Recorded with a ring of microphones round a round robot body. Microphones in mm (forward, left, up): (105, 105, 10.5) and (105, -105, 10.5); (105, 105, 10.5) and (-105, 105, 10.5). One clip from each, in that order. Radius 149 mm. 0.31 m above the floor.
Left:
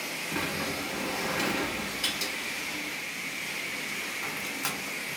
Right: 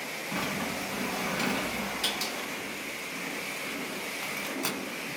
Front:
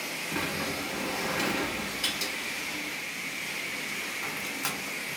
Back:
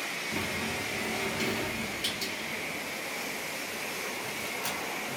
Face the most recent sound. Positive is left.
turn(degrees=-15)